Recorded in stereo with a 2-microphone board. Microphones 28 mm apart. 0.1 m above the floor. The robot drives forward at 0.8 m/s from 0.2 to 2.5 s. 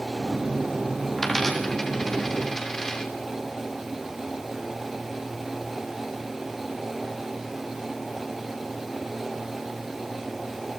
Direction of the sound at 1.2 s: 10° left (ahead or behind).